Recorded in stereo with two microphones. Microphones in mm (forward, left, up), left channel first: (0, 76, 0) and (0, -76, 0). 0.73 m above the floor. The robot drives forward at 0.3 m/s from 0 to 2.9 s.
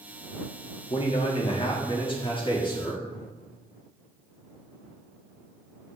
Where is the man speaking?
40° left (ahead or behind), 1.3 m; by 3.0 s 30° left (ahead or behind), 1.6 m.